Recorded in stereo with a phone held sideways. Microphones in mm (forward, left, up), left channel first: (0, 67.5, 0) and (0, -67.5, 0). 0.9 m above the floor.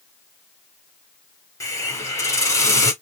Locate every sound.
1.6 s a hiss: 20° left (ahead or behind), 1.8 m